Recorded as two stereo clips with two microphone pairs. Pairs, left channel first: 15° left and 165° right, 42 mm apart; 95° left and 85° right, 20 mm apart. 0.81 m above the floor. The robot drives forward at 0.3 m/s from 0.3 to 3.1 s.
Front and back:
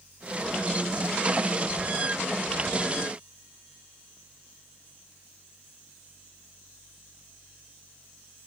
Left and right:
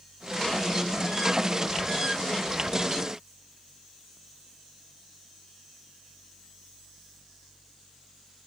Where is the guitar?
I don't hear a guitar.